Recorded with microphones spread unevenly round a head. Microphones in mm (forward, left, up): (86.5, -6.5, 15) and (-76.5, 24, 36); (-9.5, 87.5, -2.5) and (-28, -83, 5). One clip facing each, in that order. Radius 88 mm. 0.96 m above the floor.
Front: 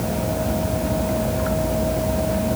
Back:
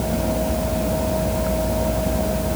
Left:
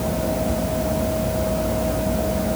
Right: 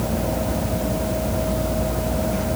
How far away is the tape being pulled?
I don't hear tape being pulled.